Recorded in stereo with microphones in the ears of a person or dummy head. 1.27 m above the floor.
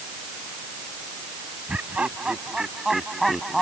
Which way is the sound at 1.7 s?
Centre (ahead or behind).